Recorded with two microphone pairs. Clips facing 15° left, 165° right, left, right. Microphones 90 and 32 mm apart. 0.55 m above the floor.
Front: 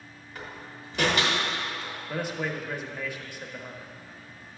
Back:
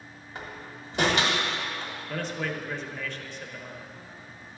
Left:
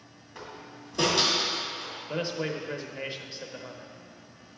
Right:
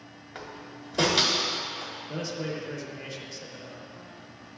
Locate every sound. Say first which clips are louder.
0.3 s a door slam: back 1 dB, right 1 dB; 105° right, 1.5 m
2.1 s a man speaking: front 1 dB, left 3 dB; 90° left, 0.7 m